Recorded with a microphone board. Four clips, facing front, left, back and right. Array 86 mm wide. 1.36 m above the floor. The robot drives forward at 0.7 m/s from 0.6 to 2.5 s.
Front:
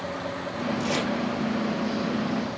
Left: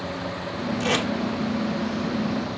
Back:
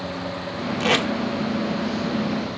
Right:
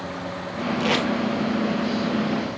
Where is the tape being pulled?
160° right, 1.7 m.